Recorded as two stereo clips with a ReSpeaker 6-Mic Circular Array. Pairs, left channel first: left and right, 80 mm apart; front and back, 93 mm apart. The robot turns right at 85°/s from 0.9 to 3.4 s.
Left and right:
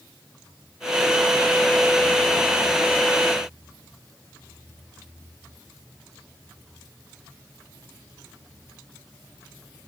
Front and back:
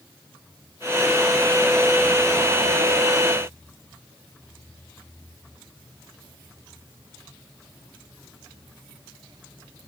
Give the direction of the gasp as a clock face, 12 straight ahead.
I don't hear a gasp.